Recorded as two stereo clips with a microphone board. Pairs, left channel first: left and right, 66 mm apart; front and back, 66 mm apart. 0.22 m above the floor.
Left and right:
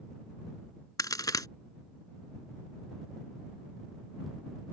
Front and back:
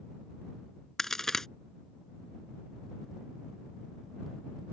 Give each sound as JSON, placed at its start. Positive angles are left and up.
{"t": 1.0, "sound": "a crack", "azimuth_deg": 85}